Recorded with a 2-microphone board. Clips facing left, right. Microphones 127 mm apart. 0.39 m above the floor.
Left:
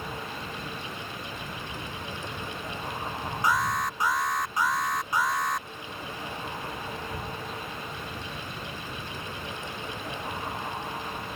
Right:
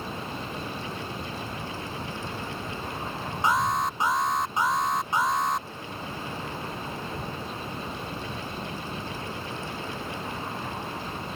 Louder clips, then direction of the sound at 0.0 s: Right 2 dB; 30° right (ahead or behind).